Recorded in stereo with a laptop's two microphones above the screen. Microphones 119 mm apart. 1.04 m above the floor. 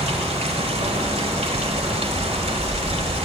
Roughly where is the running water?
Right.